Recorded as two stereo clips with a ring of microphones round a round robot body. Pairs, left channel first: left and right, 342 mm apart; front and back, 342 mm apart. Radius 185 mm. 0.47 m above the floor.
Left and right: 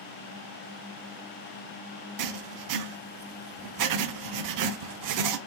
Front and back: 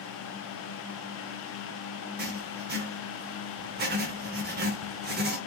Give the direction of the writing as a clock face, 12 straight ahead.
4 o'clock.